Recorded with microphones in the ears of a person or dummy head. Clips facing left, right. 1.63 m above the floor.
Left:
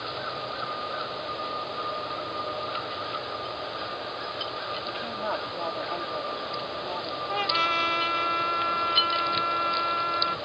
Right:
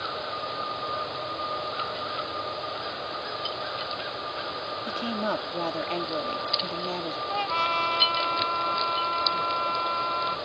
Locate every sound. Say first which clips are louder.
4.9 s a woman speaking: right 5 dB; 40° right (ahead or behind)
7.3 s a trumpet: left 1 dB; 20° left (ahead or behind)